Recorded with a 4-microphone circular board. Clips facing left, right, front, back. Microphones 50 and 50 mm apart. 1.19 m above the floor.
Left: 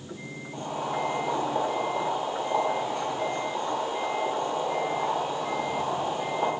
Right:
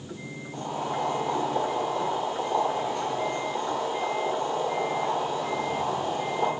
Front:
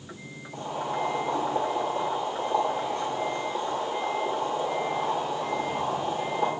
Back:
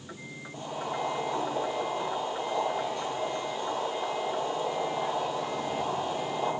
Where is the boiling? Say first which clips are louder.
Even, front 3 dB; 25° left, 1.2 m.